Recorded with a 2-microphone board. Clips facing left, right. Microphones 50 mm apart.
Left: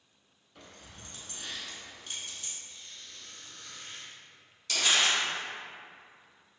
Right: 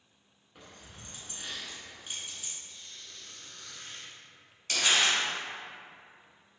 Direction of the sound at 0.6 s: 15° right (ahead or behind).